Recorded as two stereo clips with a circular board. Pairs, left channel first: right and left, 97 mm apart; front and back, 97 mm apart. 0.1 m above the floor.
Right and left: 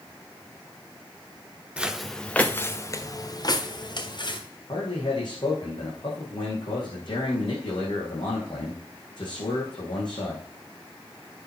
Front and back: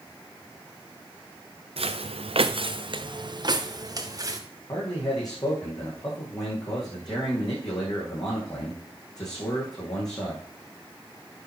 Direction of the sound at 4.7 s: 50° right.